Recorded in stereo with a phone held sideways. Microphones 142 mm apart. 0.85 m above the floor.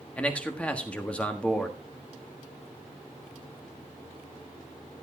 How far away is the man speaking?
About 1.4 m.